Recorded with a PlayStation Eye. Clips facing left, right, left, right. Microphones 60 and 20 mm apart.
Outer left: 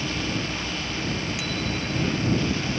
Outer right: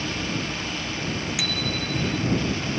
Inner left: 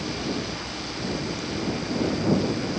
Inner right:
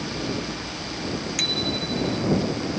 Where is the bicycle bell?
80° right.